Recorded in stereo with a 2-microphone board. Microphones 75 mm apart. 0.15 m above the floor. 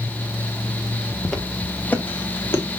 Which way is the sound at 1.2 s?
5° left (ahead or behind).